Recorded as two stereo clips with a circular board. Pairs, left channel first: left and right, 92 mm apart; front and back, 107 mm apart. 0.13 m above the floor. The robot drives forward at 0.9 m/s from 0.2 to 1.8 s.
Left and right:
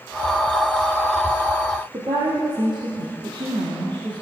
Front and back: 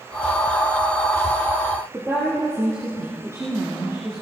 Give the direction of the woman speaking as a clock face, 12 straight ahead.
4 o'clock.